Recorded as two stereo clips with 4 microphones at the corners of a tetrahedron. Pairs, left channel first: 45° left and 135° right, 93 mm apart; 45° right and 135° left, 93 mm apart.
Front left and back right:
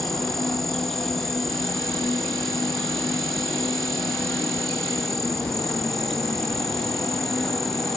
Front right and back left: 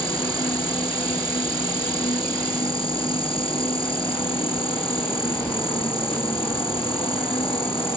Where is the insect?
40° right.